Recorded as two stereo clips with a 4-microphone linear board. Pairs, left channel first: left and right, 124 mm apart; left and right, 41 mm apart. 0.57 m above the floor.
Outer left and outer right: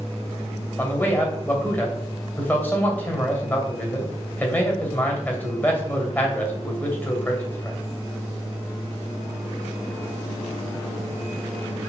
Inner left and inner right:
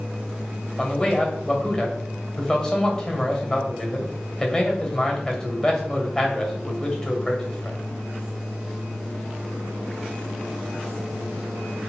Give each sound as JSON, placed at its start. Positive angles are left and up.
{"t": 0.8, "sound": "a man speaking", "side_deg": 15, "distance_m": 2.5}